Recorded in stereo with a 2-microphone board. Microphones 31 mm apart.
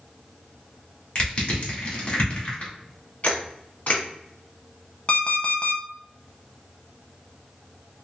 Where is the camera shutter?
55° left (ahead or behind), 1.3 m.